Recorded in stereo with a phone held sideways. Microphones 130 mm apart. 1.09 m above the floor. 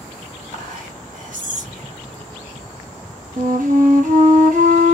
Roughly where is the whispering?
Right.